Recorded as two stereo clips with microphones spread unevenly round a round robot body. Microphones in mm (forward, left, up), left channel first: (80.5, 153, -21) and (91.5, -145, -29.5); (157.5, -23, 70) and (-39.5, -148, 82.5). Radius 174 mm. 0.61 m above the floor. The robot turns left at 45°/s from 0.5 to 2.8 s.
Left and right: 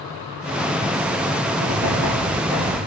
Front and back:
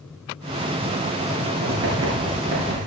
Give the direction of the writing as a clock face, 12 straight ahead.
4 o'clock.